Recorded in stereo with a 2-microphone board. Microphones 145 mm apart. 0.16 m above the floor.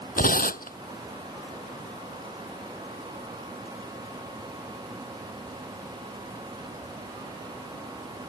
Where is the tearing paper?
75° left (ahead or behind).